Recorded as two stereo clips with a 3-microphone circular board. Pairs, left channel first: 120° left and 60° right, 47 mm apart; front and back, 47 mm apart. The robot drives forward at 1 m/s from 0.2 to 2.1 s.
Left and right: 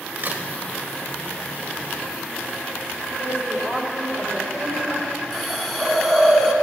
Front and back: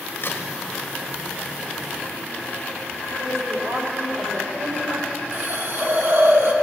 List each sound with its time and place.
0.2 s a crack: 15° right, 1.8 m; by 0.4 s 20° right, 1.6 m
3.2 s a woman speaking: straight behind, 3.5 m
5.3 s a hiss: 160° right, 2 m